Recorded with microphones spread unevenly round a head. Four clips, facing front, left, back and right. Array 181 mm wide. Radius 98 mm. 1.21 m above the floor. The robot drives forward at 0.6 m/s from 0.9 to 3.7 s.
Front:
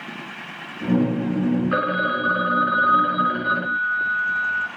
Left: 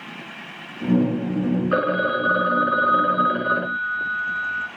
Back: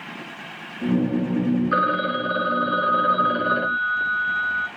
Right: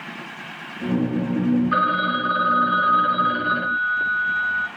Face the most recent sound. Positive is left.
turn(degrees=135)